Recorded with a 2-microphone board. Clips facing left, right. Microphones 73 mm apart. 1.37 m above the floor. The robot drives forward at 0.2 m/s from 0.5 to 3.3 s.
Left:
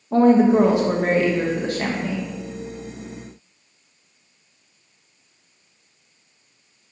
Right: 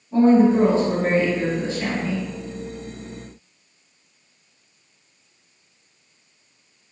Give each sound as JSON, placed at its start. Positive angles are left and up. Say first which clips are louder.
{"t": 0.1, "sound": "a woman speaking", "louder": "left 1 dB", "side_deg": 80, "distance_m": 0.7}